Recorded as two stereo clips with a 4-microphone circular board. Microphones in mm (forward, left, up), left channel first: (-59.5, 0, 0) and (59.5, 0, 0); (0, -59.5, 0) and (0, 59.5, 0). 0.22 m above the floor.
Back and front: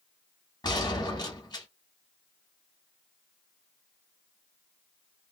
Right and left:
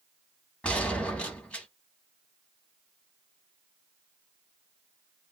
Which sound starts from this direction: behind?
A gunshot, at 0.6 s.